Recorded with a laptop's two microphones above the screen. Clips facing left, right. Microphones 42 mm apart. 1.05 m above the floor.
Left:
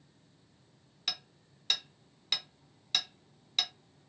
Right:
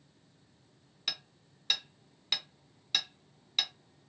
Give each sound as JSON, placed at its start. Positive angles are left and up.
{"t": 1.1, "sound": "hammering", "side_deg": -5, "distance_m": 0.7}